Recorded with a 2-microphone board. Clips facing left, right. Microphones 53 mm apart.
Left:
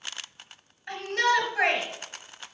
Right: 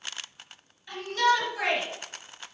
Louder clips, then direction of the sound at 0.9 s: Even; 55° left (ahead or behind).